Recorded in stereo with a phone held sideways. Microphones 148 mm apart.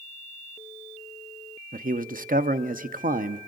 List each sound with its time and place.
1.7 s a man speaking: 70° right (ahead or behind), 0.7 m